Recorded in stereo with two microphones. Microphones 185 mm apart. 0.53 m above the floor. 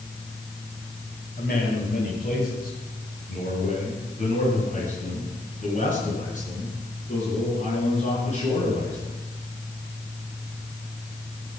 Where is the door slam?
No door slam in this recording.